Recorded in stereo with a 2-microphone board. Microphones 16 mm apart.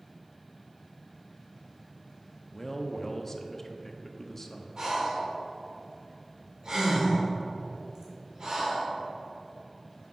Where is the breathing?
40° right (ahead or behind), 1.6 m.